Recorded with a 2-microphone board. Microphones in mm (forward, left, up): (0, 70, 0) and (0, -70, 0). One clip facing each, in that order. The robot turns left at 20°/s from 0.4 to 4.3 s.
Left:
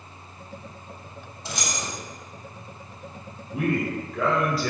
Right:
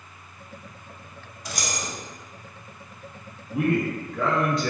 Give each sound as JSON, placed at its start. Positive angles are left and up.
{"t": 1.4, "sound": "keys jangling", "side_deg": 25, "distance_m": 0.9}
{"t": 3.5, "sound": "a man speaking", "side_deg": 0, "distance_m": 1.4}